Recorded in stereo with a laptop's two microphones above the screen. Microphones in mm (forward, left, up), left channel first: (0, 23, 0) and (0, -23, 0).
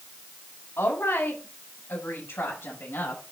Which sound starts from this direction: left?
A woman speaking, at 0.8 s.